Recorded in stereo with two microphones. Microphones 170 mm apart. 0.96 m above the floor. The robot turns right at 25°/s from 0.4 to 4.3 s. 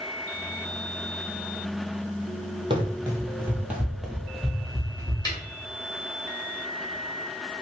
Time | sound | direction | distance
2.7 | running footsteps | 30° right (ahead or behind) | 1.1 m
5.2 | a snare drum | 25° left (ahead or behind) | 1.2 m